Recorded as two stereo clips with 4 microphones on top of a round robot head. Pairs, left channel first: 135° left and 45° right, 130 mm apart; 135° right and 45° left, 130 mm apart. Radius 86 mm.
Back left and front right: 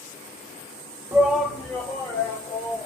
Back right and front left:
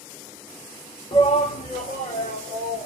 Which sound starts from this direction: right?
A shout, at 1.1 s.